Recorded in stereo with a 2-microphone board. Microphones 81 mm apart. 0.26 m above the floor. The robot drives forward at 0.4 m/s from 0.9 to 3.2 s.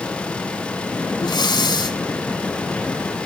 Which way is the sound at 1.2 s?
70° left (ahead or behind).